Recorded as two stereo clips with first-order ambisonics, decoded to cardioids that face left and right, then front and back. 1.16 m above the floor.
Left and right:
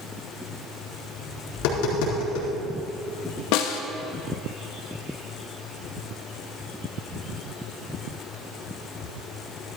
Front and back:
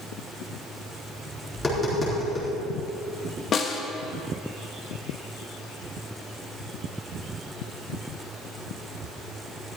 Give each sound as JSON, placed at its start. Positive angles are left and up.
{"t": 1.5, "sound": "tapping", "azimuth_deg": 80, "distance_m": 4.0}
{"t": 3.5, "sound": "a snare drum", "azimuth_deg": 65, "distance_m": 0.9}